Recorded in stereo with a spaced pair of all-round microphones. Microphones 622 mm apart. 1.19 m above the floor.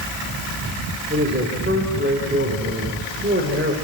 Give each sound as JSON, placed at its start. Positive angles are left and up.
{"t": 1.1, "sound": "a man speaking", "side_deg": -15, "distance_m": 3.5}